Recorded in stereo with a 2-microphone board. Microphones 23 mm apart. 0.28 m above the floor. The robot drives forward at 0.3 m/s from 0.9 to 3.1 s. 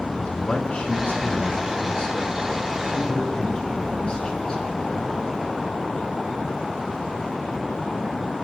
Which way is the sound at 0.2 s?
60° left (ahead or behind).